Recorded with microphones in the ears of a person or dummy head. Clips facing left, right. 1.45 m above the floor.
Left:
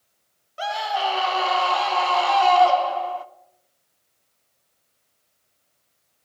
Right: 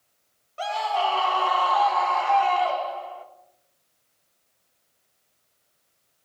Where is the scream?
15° left (ahead or behind), 1.5 m; by 3.2 s 70° left (ahead or behind), 1.2 m.